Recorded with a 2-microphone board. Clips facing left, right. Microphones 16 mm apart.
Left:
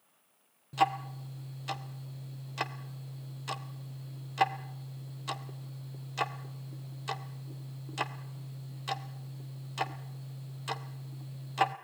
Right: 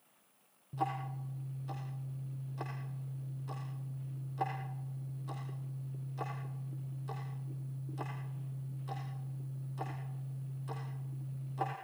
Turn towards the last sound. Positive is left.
turn(degrees=70)  # may be behind; listen again after turning